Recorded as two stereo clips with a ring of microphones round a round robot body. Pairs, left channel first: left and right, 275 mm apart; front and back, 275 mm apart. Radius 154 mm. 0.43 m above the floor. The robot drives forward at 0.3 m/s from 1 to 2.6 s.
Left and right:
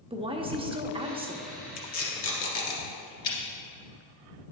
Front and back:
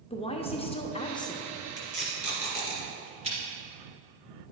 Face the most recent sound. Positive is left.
turn(degrees=115)